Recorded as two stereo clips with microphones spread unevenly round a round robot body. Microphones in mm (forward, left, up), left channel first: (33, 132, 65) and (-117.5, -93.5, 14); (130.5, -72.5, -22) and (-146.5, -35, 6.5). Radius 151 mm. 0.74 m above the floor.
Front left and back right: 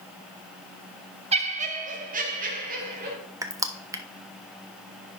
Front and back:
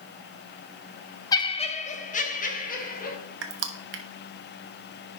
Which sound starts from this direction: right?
Laughter, at 1.3 s.